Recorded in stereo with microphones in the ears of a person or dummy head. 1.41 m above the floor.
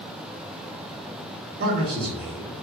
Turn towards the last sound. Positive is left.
turn(degrees=-50)  # may be behind; listen again after turning